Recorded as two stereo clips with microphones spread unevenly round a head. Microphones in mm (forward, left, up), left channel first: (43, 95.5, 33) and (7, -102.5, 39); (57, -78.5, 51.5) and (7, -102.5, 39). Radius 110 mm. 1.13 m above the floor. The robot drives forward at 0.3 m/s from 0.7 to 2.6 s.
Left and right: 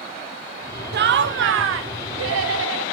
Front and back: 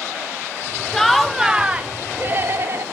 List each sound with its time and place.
0.9 s laughter: 65° right, 0.6 m; by 2.8 s 115° right, 0.6 m